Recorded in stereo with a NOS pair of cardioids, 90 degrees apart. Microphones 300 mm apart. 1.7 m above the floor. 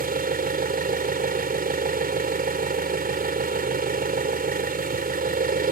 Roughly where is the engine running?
Ahead right.